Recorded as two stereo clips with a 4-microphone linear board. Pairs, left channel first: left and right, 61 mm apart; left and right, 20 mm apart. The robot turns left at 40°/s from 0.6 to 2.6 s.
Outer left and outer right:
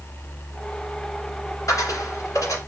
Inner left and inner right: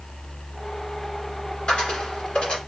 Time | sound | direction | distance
1.7 | a dropped coin | 110° left | 2 m